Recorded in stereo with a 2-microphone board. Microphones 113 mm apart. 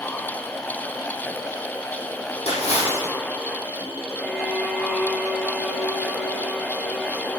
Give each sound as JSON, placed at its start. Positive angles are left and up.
{"t": 2.5, "sound": "a splash", "side_deg": 60, "distance_m": 6.0}
{"t": 4.2, "sound": "a violin", "side_deg": -5, "distance_m": 1.6}